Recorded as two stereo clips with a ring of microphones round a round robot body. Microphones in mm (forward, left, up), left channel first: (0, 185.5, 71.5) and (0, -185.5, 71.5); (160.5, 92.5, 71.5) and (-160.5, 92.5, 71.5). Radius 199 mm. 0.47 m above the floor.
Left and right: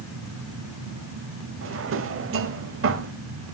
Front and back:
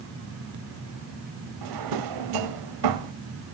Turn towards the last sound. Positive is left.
turn(degrees=-150)